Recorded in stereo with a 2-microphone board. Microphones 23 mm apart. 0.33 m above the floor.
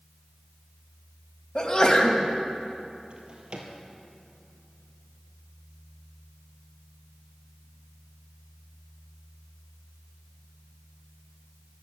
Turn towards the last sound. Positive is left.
turn(degrees=-35)  # may be behind; listen again after turning